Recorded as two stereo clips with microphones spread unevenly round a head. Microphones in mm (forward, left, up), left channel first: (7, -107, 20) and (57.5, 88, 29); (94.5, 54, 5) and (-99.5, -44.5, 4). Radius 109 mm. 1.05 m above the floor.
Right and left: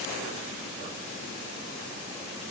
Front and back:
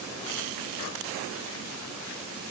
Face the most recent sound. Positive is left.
No sound to turn to.